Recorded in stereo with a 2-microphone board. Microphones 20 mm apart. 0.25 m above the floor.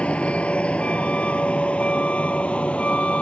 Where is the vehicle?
70° left (ahead or behind); by 3.2 s 75° left (ahead or behind).